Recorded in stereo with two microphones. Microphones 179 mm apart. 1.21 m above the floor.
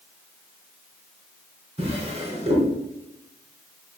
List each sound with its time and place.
1.8 s a drawer: 35° right (ahead or behind), 3.5 m